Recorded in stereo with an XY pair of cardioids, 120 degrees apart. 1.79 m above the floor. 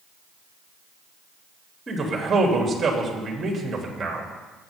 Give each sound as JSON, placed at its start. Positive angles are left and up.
{"t": 1.9, "sound": "a man speaking", "azimuth_deg": -30, "distance_m": 3.5}